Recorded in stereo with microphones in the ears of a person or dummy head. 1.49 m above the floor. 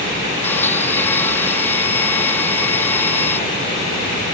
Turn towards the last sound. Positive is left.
turn(degrees=10)  # may be behind; listen again after turning